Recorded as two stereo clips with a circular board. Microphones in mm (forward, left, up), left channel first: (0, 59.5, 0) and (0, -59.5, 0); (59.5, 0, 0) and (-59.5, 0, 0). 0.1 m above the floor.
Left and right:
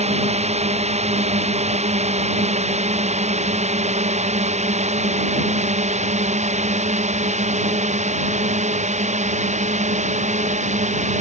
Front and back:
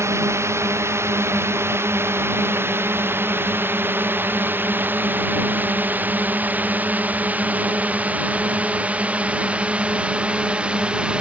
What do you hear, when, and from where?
0.0 s a drone: 115° right; by 11.2 s 100° right